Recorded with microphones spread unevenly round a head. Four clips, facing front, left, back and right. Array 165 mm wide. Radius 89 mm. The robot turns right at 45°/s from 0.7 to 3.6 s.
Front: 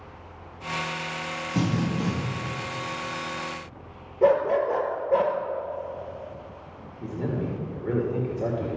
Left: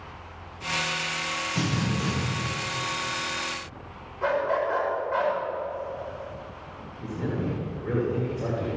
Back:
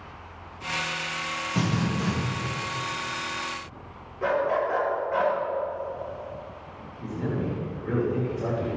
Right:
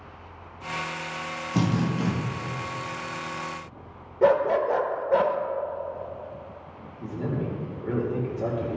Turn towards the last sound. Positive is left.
turn(degrees=0)